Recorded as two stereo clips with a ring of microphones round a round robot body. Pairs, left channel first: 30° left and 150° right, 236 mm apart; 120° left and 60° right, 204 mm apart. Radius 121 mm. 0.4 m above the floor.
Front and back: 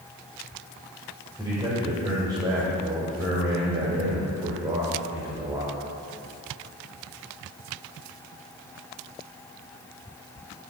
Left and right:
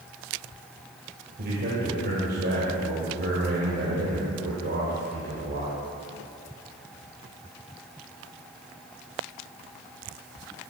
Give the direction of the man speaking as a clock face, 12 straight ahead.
3 o'clock.